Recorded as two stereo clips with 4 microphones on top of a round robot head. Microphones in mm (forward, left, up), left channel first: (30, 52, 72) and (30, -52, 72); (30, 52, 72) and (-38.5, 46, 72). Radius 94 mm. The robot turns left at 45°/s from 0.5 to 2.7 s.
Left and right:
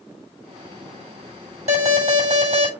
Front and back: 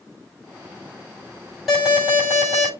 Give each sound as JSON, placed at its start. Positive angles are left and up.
{"t": 1.7, "sound": "an alarm", "azimuth_deg": -85, "distance_m": 7.0}